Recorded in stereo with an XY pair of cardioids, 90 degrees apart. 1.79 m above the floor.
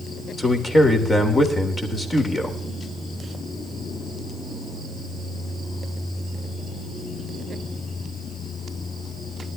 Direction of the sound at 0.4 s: 30° left.